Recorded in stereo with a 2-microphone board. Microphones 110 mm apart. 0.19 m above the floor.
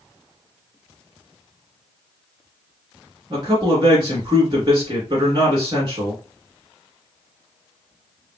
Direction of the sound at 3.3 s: 40° right (ahead or behind).